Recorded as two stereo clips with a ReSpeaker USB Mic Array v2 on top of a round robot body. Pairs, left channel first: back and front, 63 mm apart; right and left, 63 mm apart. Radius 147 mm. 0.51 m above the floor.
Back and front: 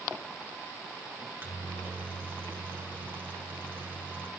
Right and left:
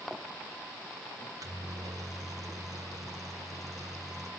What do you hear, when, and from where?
1.2 s a microwave: 60° left, 1.7 m